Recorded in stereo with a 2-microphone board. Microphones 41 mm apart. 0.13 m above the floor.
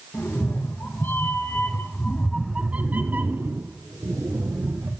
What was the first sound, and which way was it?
A cat meowing, 70° left (ahead or behind).